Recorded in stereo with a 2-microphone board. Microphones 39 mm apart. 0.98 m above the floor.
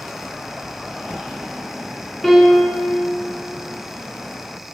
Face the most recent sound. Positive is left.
turn(degrees=10)  # may be behind; listen again after turning